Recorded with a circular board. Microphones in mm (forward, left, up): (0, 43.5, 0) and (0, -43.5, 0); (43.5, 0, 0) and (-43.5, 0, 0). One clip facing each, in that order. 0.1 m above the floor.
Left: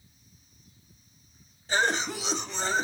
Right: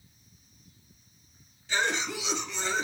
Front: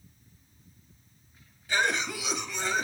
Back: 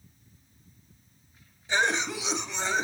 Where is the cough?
125° left, 2.0 m.